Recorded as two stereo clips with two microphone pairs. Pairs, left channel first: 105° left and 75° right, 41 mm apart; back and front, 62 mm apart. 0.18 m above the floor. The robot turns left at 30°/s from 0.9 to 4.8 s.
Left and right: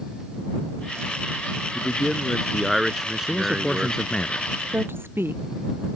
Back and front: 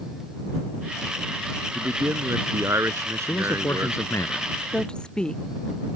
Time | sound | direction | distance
1.8 | a man speaking | 40° left | ?
3.2 | a man speaking | 170° right | ?
4.7 | a woman speaking | 100° right | ?